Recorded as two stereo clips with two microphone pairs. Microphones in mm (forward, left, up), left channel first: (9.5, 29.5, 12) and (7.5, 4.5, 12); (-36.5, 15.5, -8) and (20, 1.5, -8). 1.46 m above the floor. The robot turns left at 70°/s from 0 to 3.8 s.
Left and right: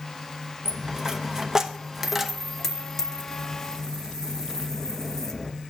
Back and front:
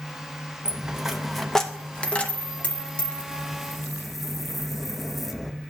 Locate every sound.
0.7 s a dropped coin: 65° right, 0.7 m; by 5.5 s 75° left, 0.7 m